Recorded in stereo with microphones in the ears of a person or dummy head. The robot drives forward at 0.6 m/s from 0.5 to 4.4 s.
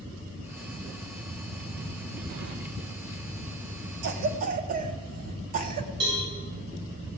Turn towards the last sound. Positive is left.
turn(degrees=-75)  # may be behind; listen again after turning